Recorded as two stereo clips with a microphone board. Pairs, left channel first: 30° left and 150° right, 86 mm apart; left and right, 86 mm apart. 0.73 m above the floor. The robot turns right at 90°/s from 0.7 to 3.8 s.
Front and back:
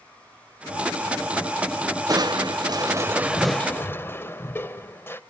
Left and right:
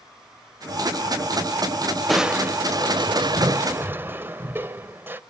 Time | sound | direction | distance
2.1 | crushing | 175° left | 0.6 m